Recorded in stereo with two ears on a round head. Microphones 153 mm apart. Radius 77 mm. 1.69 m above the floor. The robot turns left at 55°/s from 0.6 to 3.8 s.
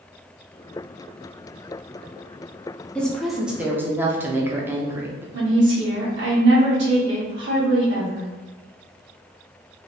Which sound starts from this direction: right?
A woman speaking, at 5.3 s.